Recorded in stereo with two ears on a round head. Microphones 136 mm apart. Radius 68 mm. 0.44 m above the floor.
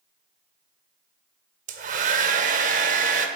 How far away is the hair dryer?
About 1.1 m.